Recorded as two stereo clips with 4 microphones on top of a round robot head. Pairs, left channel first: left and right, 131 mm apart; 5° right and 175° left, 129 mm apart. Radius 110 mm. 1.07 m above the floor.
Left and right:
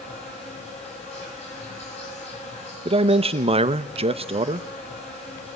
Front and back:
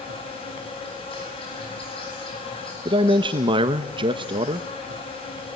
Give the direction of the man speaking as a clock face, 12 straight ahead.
4 o'clock.